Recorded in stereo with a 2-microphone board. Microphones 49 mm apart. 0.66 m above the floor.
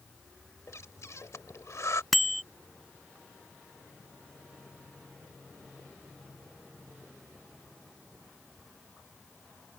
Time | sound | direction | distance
0.7 | breathing | 75° left (ahead or behind) | ?
2.1 | a bicycle bell | centre (ahead or behind) | ?